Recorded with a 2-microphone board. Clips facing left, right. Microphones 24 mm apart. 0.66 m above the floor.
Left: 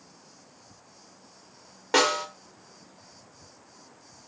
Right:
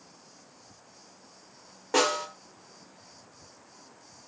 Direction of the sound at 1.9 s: 65° left (ahead or behind).